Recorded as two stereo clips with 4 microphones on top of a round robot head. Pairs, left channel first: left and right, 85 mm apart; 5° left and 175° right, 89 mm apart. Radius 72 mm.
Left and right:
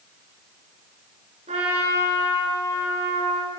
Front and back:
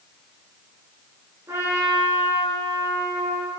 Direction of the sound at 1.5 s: 105° right.